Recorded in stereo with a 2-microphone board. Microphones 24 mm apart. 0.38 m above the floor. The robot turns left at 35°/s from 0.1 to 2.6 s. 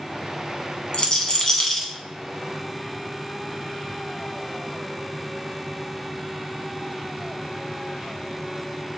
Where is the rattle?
35° left (ahead or behind), 0.9 m; by 1.9 s 5° left (ahead or behind), 0.9 m.